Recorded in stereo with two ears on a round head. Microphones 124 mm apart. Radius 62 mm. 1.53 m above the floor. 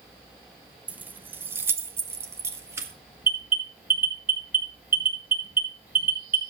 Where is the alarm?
10° right (ahead or behind), 3 m.